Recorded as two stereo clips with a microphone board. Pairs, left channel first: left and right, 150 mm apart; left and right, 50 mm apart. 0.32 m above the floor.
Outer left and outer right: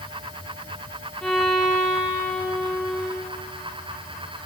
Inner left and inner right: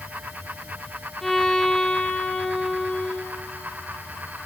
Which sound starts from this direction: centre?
A violin, at 1.2 s.